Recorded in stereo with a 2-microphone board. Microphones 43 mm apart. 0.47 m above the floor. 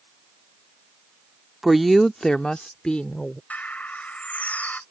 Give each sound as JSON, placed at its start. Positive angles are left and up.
{"t": 1.6, "sound": "a woman speaking", "side_deg": -5}
{"t": 3.5, "sound": "a bird", "side_deg": 40}